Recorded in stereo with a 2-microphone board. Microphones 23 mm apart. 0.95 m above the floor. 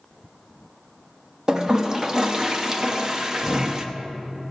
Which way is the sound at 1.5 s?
20° right (ahead or behind).